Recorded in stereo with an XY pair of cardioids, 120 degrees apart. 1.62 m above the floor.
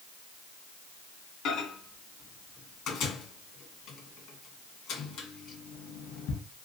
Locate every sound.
1.4 s a microwave: 70° left, 1.7 m